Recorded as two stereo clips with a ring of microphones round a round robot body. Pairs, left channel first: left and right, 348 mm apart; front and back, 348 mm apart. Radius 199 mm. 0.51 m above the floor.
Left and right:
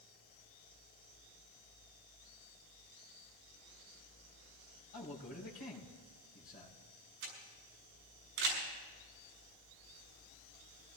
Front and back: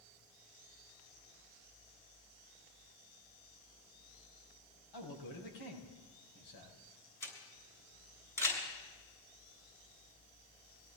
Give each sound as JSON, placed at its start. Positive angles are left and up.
{"t": 4.9, "sound": "a man speaking", "azimuth_deg": 20, "distance_m": 5.0}
{"t": 7.2, "sound": "a camera shutter", "azimuth_deg": -85, "distance_m": 6.0}